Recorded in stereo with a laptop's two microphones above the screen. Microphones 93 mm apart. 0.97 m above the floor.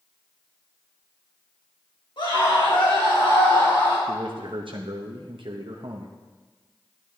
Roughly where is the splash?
I don't hear a splash.